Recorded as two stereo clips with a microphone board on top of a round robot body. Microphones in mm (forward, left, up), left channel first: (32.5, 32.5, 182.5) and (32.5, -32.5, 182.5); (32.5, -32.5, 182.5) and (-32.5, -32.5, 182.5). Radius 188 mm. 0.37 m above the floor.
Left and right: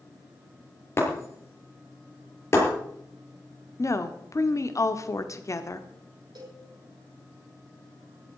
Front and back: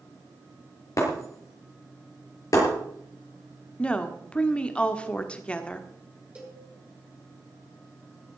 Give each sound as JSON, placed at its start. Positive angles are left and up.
{"t": 1.0, "sound": "breaking glass", "azimuth_deg": 40, "distance_m": 7.0}
{"t": 3.8, "sound": "a woman speaking", "azimuth_deg": 70, "distance_m": 1.7}
{"t": 6.3, "sound": "a cowbell", "azimuth_deg": -105, "distance_m": 9.0}